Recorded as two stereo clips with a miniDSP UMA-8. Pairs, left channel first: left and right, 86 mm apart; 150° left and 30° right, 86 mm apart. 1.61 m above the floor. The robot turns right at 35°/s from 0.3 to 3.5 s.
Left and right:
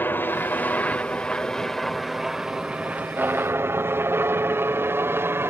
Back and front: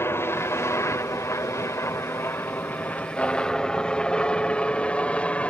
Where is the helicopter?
130° left; by 5.5 s 140° right.